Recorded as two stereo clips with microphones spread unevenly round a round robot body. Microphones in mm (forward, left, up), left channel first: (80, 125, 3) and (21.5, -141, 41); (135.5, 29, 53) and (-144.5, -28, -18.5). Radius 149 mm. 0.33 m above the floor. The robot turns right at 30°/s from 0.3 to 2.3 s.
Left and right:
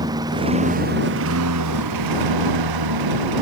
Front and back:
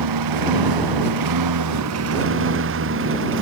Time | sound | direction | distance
0.0 | a lawn mower | straight behind | ?